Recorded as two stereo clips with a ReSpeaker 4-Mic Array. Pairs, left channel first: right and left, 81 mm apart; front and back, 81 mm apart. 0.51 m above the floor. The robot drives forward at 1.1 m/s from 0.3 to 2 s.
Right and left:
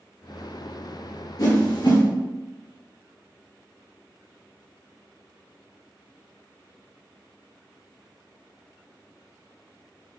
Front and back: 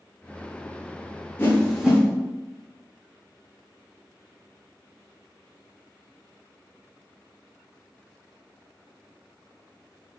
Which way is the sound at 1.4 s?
60° right.